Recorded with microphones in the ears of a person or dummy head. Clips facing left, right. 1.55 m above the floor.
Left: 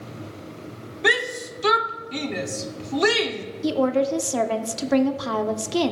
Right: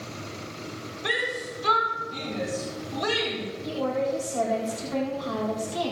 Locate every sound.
1.0 s a shout: 65° left (ahead or behind), 1.0 m
3.6 s a woman speaking: 70° left (ahead or behind), 0.9 m